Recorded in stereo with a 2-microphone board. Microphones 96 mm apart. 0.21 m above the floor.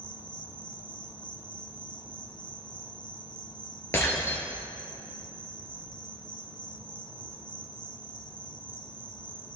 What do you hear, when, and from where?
0.0 s an insect: 55° left (ahead or behind), 1.1 m
3.9 s breaking glass: 30° left (ahead or behind), 2 m